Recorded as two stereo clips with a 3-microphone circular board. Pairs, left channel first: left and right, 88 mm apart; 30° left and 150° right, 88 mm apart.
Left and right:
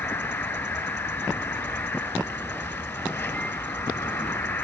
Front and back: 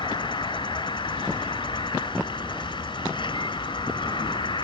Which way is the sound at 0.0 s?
30° left.